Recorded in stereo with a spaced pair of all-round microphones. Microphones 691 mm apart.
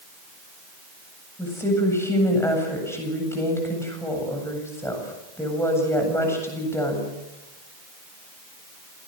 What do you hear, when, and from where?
1.4 s a woman speaking: 5° left (ahead or behind), 8 m